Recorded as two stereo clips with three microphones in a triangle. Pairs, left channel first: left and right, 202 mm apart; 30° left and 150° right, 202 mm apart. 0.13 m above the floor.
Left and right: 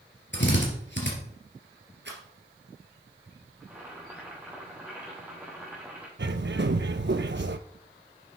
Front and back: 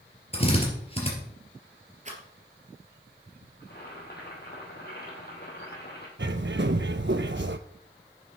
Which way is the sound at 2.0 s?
100° right.